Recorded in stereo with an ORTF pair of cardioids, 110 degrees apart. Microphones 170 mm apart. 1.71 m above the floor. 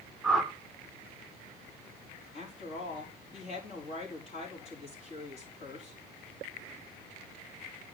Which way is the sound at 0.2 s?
Straight ahead.